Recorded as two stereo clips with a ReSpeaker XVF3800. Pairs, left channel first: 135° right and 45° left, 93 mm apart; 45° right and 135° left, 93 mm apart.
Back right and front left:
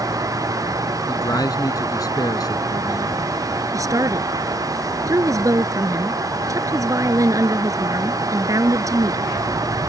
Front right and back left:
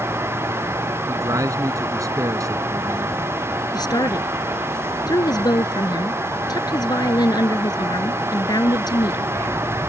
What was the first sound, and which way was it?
A man speaking, 175° right.